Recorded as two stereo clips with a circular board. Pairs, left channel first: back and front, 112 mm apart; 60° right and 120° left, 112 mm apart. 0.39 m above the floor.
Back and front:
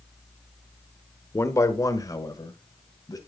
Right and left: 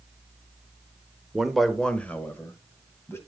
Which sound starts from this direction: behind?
A man speaking, at 1.3 s.